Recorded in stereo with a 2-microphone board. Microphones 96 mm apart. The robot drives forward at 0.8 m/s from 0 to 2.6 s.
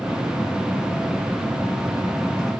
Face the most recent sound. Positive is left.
No sound to turn to.